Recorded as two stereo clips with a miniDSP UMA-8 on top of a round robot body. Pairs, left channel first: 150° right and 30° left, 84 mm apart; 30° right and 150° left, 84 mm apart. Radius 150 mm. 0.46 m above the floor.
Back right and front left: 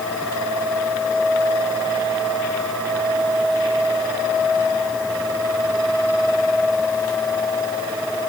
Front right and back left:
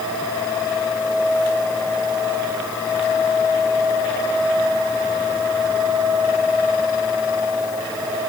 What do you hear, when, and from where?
Only background noise.